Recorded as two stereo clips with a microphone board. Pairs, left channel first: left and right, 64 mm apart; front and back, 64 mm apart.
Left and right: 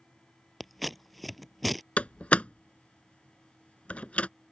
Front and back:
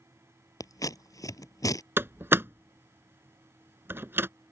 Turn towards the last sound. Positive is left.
turn(degrees=150)